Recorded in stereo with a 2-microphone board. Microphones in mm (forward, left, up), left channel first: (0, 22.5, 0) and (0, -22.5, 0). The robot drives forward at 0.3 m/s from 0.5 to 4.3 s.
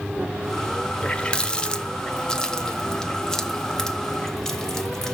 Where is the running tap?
25° left (ahead or behind), 0.9 m; by 5.2 s 15° left (ahead or behind), 1.8 m.